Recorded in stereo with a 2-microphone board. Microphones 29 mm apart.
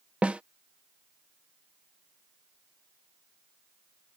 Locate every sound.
0.2 s a snare drum: 45° right (ahead or behind)